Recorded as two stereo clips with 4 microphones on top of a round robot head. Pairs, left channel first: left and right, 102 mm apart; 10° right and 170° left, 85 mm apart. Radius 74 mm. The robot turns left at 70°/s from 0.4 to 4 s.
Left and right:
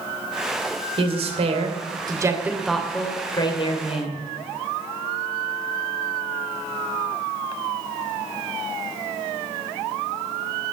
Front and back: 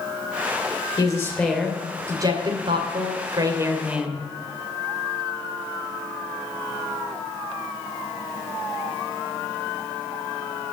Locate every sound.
1.0 s a woman speaking: 60° right, 2.5 m; by 4.2 s 90° left, 2.5 m